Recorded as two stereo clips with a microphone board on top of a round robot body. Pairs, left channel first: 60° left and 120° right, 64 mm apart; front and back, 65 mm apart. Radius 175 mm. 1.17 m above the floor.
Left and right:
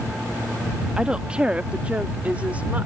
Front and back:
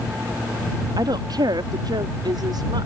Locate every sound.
1.0 s a woman speaking: 160° left; by 2.9 s 170° left